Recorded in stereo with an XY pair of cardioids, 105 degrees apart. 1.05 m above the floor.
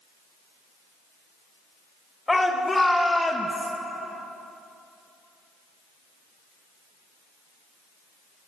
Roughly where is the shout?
Ahead.